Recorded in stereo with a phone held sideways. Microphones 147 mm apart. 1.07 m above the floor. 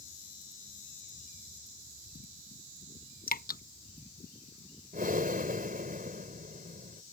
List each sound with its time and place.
3.3 s dripping: 80° left
4.9 s breathing: 75° right (ahead or behind)